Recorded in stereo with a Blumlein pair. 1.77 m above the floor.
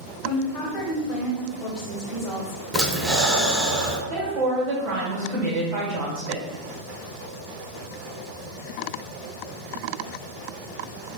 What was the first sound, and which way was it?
A woman speaking, 20° left.